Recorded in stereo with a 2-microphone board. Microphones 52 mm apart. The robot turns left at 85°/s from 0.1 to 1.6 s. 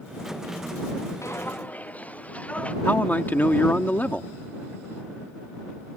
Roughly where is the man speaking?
Left.